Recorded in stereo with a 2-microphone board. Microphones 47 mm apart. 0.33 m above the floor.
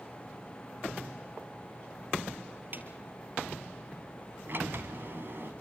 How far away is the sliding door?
About 2.0 m.